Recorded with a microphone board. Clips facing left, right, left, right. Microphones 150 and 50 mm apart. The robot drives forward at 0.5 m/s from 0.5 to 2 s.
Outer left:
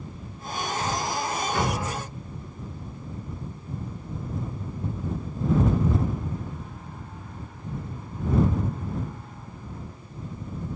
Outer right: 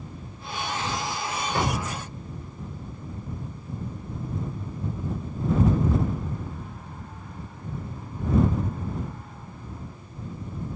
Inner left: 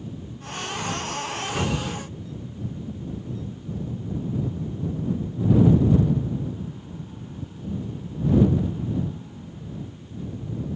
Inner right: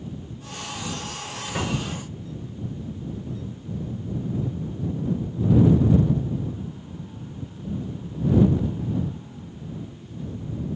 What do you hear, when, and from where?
1.6 s a cupboard door: 45° right (ahead or behind), 1.6 m; by 2.0 s 40° right (ahead or behind), 1.8 m